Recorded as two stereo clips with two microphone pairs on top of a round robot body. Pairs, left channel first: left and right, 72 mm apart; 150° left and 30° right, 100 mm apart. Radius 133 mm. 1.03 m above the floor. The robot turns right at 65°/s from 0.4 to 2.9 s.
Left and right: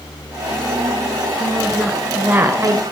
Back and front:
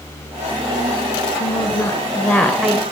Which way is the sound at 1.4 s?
155° left.